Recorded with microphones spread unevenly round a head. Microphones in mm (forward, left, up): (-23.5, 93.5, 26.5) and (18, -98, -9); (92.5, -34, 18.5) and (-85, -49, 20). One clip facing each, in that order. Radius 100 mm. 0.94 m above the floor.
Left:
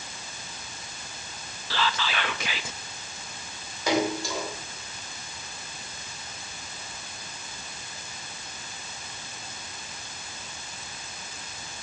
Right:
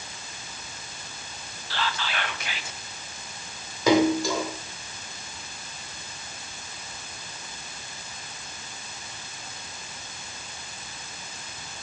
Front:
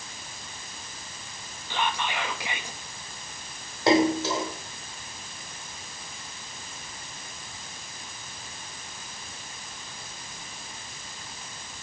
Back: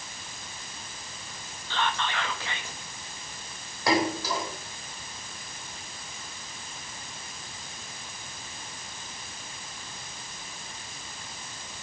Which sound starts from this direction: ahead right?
A splash, at 3.9 s.